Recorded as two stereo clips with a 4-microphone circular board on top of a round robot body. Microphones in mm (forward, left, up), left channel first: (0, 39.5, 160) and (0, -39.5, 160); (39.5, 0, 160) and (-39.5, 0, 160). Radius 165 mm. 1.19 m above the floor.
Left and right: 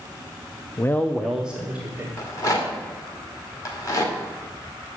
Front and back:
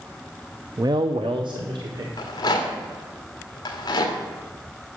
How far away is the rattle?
About 1.4 m.